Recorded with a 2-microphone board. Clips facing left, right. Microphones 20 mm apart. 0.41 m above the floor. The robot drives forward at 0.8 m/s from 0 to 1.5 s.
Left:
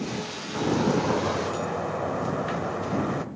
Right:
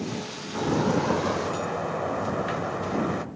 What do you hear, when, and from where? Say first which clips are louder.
0.6 s a sliding door: even; 10° right (ahead or behind), 0.5 m; by 3.2 s 5° right (ahead or behind), 1.0 m